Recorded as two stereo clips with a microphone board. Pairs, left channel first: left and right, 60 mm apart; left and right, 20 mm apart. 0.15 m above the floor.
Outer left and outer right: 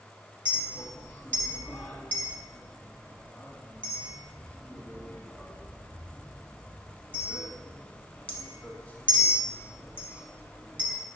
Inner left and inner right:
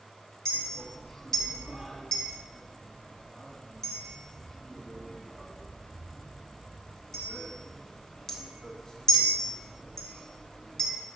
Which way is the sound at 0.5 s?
25° left (ahead or behind).